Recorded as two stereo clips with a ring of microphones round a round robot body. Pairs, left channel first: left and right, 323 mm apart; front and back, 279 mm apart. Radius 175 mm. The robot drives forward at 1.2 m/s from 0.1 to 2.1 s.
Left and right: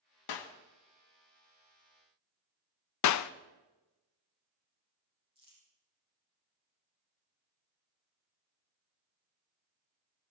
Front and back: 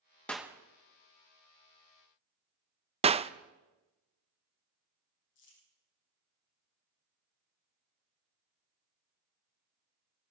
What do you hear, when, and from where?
0.3 s a clap: 85° left, 1.2 m; by 0.6 s 100° left, 1.2 m
3.0 s a clap: 110° left, 0.6 m
5.3 s crumpling: 15° right, 7.5 m